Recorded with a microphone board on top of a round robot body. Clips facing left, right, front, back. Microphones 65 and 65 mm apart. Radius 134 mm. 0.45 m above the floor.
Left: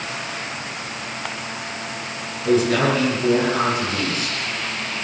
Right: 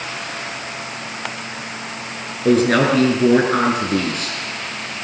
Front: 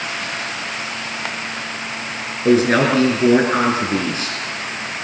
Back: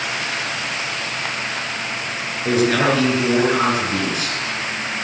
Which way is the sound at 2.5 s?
55° right.